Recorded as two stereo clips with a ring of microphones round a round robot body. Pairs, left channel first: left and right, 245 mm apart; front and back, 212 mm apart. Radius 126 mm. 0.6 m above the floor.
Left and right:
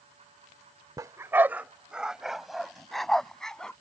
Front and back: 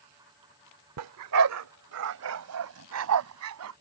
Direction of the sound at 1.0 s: 165° right.